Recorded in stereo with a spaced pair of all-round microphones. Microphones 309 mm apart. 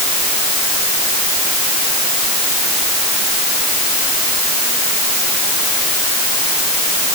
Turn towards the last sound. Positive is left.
No sound to turn to.